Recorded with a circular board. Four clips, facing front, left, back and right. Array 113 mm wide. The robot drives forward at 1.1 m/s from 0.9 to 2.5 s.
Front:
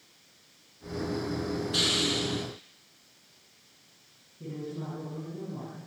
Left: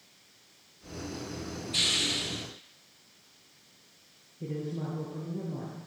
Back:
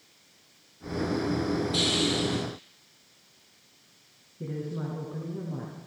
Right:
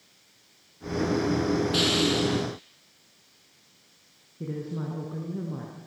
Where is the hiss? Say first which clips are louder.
Right 12 dB, back 3 dB; 60° right, 3.5 m; by 2.4 s 75° right, 3.5 m.